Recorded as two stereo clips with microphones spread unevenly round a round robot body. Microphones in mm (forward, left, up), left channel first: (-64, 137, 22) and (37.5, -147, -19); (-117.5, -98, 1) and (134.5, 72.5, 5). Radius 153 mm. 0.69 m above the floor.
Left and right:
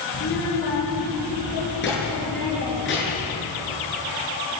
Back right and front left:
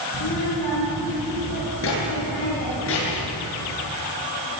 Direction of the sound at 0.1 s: 165° left.